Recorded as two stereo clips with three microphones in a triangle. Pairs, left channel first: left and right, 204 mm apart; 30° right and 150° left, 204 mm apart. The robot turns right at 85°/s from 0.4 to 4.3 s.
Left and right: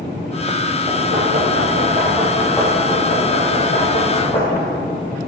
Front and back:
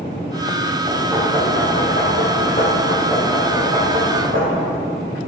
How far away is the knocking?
About 4 m.